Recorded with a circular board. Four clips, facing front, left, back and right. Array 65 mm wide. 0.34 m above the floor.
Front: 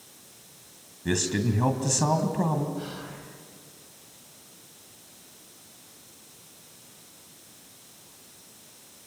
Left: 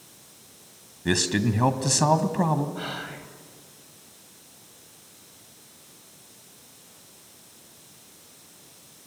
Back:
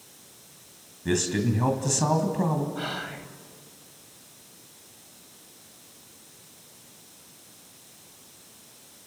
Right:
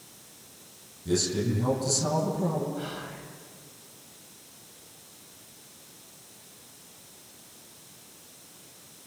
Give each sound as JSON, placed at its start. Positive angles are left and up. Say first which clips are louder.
{"t": 1.1, "sound": "a man speaking", "louder": "left 3 dB, back 1 dB", "azimuth_deg": 90, "distance_m": 2.5}
{"t": 2.8, "sound": "whispering", "louder": "left 2 dB, back 4 dB", "azimuth_deg": 145, "distance_m": 1.8}